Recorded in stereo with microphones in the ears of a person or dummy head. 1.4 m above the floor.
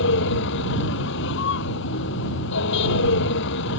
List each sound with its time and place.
0.0 s a vehicle: 65° left (ahead or behind)